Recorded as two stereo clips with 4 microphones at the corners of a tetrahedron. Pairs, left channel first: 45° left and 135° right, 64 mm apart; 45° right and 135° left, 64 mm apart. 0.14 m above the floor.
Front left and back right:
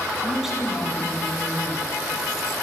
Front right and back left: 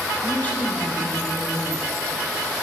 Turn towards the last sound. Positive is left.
turn(degrees=-65)